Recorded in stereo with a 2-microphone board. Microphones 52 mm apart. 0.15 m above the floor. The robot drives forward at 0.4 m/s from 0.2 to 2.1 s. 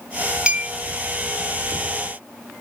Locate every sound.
0.5 s a clink: 20° right (ahead or behind), 0.6 m